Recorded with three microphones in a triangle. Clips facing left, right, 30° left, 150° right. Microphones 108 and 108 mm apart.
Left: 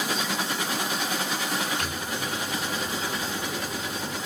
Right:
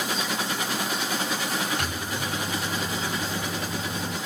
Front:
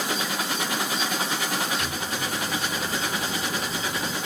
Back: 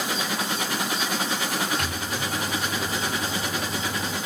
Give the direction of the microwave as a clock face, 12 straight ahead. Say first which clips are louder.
Right 1 dB, even; 4 o'clock.